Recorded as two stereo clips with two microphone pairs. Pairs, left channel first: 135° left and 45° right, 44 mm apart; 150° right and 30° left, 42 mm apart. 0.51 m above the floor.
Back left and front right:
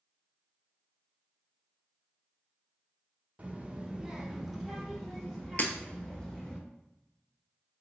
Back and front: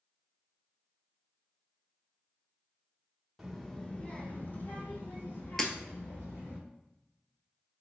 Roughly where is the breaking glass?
Behind left.